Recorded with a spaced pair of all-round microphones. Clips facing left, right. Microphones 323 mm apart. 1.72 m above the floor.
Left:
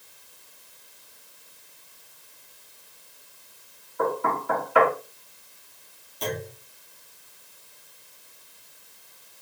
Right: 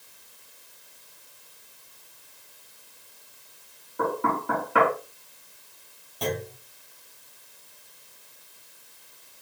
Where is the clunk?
85° right, 2.5 m.